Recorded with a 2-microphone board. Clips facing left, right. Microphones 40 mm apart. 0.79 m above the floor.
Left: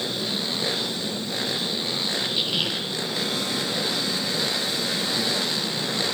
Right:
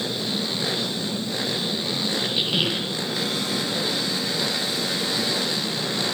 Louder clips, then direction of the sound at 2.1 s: Right 2 dB; 15° right (ahead or behind).